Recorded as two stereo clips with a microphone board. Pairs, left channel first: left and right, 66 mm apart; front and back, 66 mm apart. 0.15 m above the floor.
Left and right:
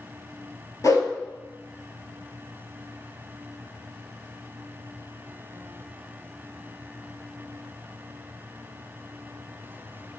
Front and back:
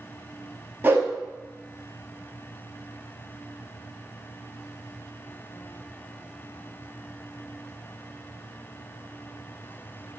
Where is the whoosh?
120° left, 1.1 m.